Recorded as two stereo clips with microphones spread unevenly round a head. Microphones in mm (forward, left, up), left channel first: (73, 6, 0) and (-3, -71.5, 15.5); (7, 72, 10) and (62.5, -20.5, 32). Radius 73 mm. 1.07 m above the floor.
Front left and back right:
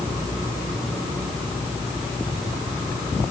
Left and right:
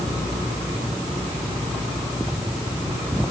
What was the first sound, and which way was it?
Only background noise.